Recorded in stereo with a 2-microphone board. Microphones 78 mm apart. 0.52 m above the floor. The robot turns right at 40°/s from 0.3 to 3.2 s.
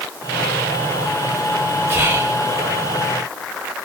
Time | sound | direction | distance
1.9 | whispering | 30° right (ahead or behind) | 1.1 m